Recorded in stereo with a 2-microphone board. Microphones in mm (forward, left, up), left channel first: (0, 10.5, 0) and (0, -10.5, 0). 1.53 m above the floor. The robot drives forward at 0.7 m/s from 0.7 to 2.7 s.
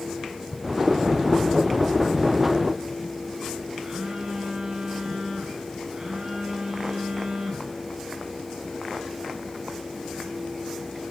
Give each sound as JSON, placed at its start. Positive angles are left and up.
{"t": 3.8, "sound": "a phone buzzing", "side_deg": -30, "distance_m": 9.0}